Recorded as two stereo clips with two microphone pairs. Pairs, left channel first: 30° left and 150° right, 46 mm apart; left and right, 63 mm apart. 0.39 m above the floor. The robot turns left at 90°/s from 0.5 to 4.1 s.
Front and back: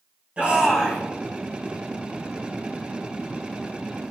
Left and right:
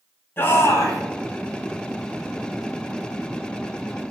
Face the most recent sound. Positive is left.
turn(degrees=180)